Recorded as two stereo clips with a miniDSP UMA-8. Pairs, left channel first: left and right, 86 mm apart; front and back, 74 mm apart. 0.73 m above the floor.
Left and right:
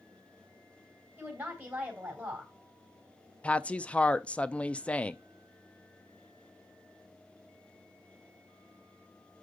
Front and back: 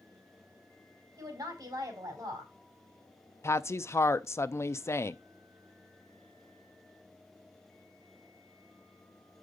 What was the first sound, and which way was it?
A woman speaking, 160° right.